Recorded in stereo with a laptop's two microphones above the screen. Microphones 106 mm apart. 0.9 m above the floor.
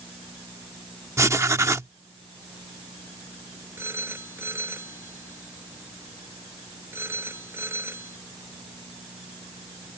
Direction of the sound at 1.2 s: 25° right (ahead or behind).